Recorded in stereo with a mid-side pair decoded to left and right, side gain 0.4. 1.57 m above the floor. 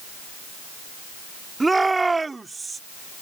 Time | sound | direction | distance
1.6 | a shout | 20° right | ?